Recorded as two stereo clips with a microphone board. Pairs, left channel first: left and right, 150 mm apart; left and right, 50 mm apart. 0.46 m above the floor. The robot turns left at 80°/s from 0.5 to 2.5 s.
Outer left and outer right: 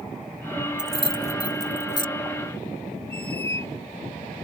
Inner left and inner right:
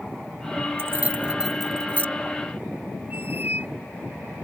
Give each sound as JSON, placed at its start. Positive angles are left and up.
{"t": 0.8, "sound": "keys jangling", "side_deg": -55}
{"t": 3.1, "sound": "a squeak", "side_deg": -40}